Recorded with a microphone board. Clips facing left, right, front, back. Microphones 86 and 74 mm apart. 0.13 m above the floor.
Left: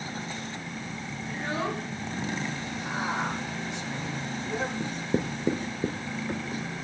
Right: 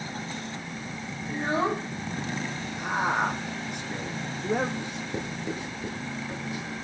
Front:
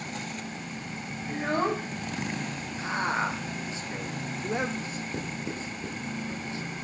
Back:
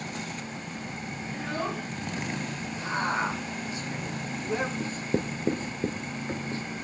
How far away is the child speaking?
About 1.0 m.